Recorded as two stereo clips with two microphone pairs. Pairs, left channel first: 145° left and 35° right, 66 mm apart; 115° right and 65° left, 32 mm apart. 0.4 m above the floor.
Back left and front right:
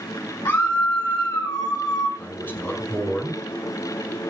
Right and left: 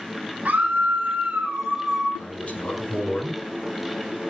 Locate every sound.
0.5 s a scream: 110° left, 3 m; by 2.1 s 150° left, 4 m
2.2 s a man speaking: 155° right, 5.5 m